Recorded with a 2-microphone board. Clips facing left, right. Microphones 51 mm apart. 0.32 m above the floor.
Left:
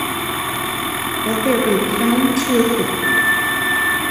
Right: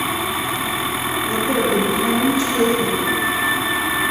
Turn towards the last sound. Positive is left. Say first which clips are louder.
# left 3 dB
turn(degrees=70)  # may be behind; listen again after turning